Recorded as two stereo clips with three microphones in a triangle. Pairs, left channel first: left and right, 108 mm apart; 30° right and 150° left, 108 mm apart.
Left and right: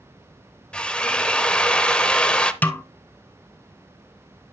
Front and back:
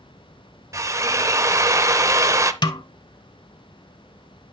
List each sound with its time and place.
0.7 s a drill: 160° left, 0.5 m
2.6 s a snare drum: 15° left, 0.5 m